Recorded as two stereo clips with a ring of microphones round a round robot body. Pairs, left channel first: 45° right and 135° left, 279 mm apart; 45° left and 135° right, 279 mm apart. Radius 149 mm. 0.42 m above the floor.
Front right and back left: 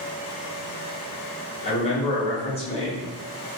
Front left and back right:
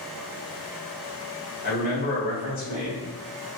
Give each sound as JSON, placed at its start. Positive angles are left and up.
{"t": 1.6, "sound": "a man speaking", "azimuth_deg": 10, "distance_m": 1.3}